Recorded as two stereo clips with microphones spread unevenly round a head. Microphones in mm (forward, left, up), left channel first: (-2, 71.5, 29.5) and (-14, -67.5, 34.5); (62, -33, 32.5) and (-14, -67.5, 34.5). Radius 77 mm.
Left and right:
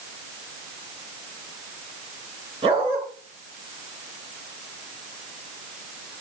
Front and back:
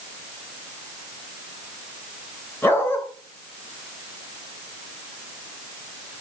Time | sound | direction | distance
2.6 | a dog barking | 40° right | 8 m